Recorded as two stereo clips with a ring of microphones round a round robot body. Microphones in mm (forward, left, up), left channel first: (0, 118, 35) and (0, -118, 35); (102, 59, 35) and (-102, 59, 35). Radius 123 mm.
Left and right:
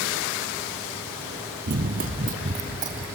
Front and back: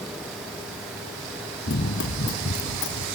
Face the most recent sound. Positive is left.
turn(degrees=-30)